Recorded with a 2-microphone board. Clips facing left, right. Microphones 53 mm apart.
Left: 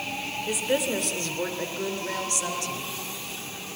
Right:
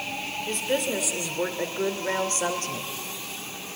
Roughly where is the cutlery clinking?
I don't hear cutlery clinking.